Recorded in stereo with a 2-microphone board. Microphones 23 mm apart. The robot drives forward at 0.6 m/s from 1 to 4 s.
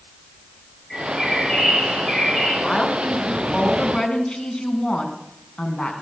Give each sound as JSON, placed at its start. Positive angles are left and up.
{"t": 0.9, "sound": "a bird", "side_deg": 25, "distance_m": 5.5}
{"t": 2.6, "sound": "a woman speaking", "side_deg": 40, "distance_m": 3.0}